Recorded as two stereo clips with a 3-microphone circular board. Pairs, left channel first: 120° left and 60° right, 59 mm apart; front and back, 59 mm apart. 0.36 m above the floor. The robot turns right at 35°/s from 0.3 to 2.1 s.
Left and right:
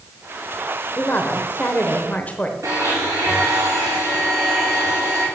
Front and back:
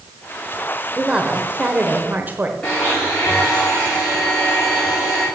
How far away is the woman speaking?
About 0.9 m.